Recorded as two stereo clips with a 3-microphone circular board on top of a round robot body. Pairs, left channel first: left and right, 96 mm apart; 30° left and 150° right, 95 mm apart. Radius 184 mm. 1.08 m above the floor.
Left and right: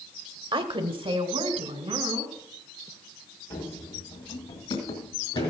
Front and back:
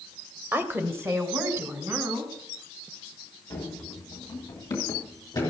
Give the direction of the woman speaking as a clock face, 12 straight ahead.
3 o'clock.